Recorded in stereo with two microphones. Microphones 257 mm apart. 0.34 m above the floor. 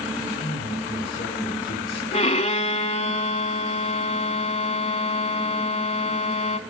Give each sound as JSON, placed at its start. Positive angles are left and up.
{"t": 0.2, "sound": "a man speaking", "side_deg": 45, "distance_m": 6.0}
{"t": 2.1, "sound": "a violin", "side_deg": 25, "distance_m": 0.6}